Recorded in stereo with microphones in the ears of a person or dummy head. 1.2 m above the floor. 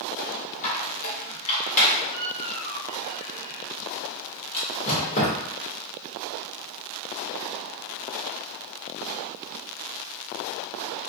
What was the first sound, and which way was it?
A squeak, 35° left (ahead or behind).